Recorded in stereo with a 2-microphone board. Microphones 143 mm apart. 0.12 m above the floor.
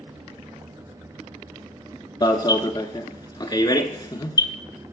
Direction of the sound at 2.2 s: 35° left (ahead or behind).